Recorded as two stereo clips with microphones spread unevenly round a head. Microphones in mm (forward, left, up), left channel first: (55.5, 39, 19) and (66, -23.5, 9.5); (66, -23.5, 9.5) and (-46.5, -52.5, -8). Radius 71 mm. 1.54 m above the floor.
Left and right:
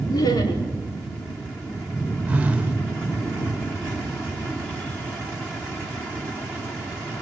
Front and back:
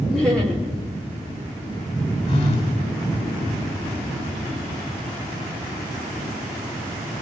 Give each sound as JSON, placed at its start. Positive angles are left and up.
{"t": 0.1, "sound": "laughter", "azimuth_deg": 100, "distance_m": 4.0}
{"t": 2.3, "sound": "a phone buzzing", "azimuth_deg": -10, "distance_m": 4.0}